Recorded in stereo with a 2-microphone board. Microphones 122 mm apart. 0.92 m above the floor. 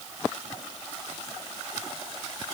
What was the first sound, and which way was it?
Only background noise.